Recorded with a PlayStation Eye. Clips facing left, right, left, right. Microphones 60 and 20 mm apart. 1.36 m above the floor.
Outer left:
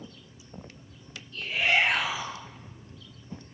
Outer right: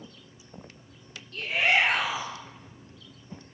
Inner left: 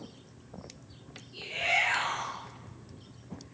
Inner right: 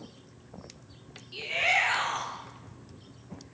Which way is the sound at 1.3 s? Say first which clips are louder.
Outer right 1 dB, inner right 3 dB; 65° right (ahead or behind).